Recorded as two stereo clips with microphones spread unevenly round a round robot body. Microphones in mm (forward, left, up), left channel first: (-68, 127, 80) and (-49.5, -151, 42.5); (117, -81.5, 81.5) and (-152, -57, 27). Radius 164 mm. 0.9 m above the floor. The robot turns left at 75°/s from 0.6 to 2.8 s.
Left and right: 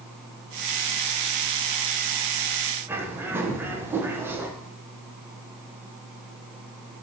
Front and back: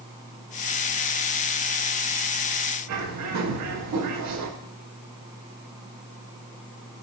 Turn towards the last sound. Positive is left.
turn(degrees=-165)